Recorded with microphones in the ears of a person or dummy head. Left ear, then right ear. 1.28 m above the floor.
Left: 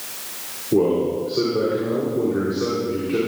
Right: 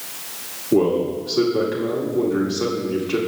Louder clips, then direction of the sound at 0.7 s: Even; 75° right (ahead or behind).